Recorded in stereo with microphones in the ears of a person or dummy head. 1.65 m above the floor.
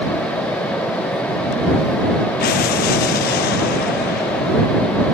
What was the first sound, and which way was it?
An explosion, 60° left (ahead or behind).